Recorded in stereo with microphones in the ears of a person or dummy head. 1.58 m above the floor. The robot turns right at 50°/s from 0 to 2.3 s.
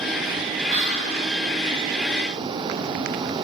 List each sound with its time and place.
0.7 s whispering: 50° right (ahead or behind), 3.5 m; by 1.2 s 25° right (ahead or behind), 3.5 m